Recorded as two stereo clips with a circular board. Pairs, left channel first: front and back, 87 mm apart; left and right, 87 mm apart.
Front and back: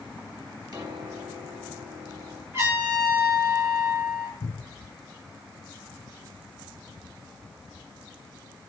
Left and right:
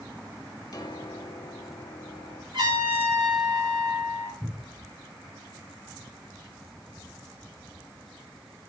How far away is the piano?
About 3.5 m.